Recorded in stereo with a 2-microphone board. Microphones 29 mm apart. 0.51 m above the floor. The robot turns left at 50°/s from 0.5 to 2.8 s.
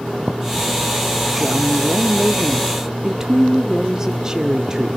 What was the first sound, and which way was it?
A woman speaking, 20° right (ahead or behind).